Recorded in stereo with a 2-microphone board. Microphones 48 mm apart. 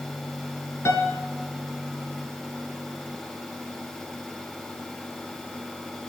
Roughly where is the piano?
Left.